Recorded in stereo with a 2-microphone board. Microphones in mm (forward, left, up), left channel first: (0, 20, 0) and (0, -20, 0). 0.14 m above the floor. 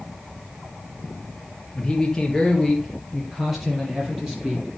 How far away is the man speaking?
About 3 m.